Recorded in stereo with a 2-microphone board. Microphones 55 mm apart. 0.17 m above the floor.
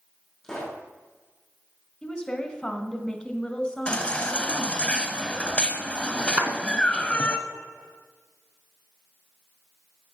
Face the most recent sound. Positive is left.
turn(degrees=-30)  # may be behind; listen again after turning